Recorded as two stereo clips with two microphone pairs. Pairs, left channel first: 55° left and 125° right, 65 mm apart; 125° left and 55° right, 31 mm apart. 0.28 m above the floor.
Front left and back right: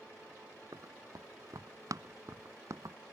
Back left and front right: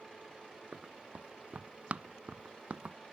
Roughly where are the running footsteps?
Right.